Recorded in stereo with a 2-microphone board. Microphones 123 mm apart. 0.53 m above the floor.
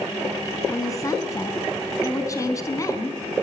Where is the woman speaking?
25° left (ahead or behind), 4.5 m.